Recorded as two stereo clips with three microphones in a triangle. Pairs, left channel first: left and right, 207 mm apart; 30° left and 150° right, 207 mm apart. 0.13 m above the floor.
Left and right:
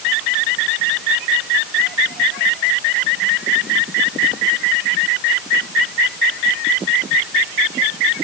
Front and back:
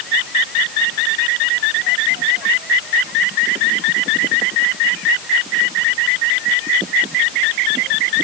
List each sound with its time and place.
Only background noise.